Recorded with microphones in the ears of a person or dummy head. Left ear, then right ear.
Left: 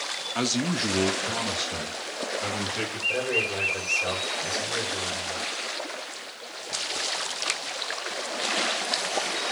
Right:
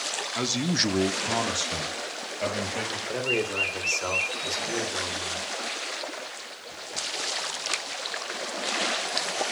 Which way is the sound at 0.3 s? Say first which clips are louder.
Even; 10° left (ahead or behind).